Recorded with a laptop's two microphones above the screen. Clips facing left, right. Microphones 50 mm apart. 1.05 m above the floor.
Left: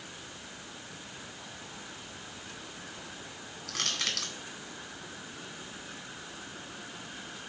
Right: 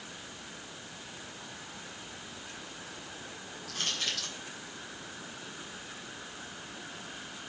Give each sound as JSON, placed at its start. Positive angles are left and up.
{"t": 3.7, "sound": "crushing", "side_deg": 80, "distance_m": 2.0}